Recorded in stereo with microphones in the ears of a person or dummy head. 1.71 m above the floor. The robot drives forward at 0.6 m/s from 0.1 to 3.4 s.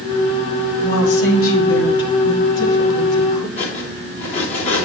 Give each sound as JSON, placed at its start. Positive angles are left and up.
{"t": 0.8, "sound": "a woman speaking", "side_deg": 85, "distance_m": 2.0}
{"t": 3.6, "sound": "cutlery clinking", "side_deg": 35, "distance_m": 1.8}